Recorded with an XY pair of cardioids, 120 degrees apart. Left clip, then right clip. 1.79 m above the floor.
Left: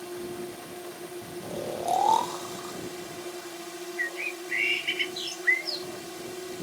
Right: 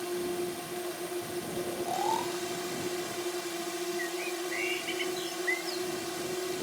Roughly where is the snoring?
Ahead left.